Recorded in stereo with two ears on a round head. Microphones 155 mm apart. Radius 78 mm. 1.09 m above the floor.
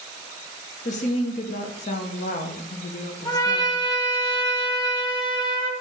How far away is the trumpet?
About 1.1 m.